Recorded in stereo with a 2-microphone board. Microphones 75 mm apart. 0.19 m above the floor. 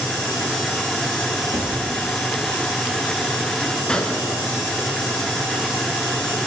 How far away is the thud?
About 2 m.